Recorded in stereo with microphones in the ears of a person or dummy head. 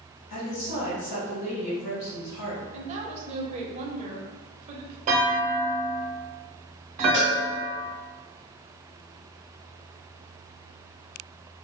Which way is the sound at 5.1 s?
40° right (ahead or behind).